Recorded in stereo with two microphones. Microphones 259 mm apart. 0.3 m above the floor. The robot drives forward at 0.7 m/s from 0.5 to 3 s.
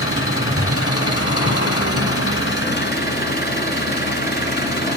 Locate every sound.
0.0 s an engine running: 55° left (ahead or behind), 1.3 m; by 5.0 s 45° left (ahead or behind), 1.6 m